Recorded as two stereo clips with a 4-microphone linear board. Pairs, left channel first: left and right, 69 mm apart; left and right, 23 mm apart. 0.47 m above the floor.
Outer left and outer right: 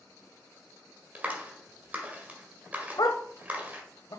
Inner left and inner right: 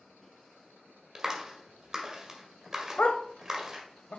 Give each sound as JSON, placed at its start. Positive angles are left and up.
{"t": 1.1, "sound": "a clap", "side_deg": -25, "distance_m": 1.7}
{"t": 3.0, "sound": "a dog barking", "side_deg": 80, "distance_m": 0.8}